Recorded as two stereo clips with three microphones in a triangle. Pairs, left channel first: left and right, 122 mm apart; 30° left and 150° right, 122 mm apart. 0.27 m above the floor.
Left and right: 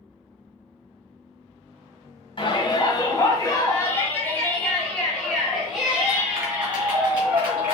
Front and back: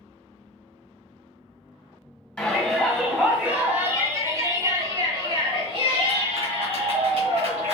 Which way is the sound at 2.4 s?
100° left.